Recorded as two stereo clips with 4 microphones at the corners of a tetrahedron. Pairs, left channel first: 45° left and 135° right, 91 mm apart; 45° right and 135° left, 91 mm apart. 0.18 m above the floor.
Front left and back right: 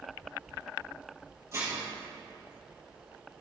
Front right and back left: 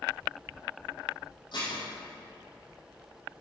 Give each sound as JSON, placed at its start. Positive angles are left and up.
{"t": 1.5, "sound": "dishes clattering", "azimuth_deg": -80, "distance_m": 3.0}